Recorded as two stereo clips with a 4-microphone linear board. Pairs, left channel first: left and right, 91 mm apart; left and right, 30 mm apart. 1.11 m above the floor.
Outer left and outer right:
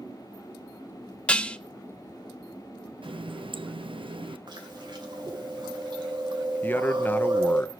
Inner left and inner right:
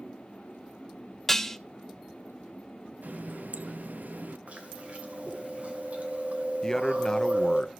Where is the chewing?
60° right (ahead or behind), 2.5 m.